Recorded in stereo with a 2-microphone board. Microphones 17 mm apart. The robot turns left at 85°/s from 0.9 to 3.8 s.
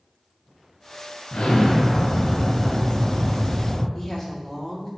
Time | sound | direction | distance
1.3 | an explosion | 85° left | 1.7 m
4.0 | a woman speaking | 25° left (ahead or behind) | 1.8 m